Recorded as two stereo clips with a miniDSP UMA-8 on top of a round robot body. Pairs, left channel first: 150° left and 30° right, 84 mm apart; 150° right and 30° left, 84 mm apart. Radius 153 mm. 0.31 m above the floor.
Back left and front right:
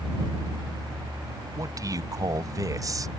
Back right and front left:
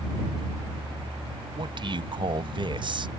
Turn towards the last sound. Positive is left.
turn(degrees=15)